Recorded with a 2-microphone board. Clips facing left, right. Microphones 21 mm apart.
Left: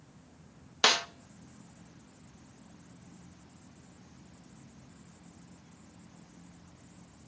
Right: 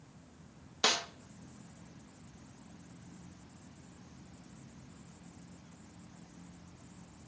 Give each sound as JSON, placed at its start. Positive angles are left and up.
{"t": 0.8, "sound": "a snare drum", "side_deg": 40, "distance_m": 0.7}